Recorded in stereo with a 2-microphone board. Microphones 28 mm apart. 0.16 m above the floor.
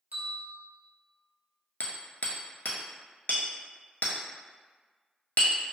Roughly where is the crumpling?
No crumpling in this recording.